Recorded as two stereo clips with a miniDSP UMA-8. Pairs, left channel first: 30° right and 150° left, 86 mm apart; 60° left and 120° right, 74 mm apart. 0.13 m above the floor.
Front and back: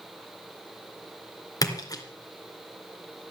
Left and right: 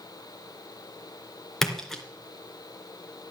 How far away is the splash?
About 2 m.